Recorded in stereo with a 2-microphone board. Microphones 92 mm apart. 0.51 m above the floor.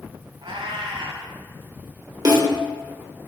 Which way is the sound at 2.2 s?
40° right (ahead or behind).